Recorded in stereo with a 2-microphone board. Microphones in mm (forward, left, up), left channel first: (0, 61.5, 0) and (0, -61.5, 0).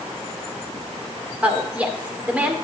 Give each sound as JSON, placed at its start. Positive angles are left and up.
{"t": 1.4, "sound": "a woman speaking", "side_deg": -10, "distance_m": 1.8}